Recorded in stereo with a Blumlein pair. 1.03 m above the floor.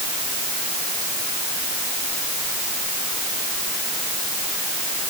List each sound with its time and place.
Only background noise.